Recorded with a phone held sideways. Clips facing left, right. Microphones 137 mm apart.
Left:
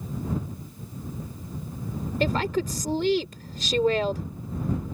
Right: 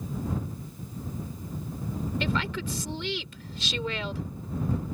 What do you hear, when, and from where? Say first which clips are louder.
2.2 s a woman speaking: left 9 dB; 45° left (ahead or behind)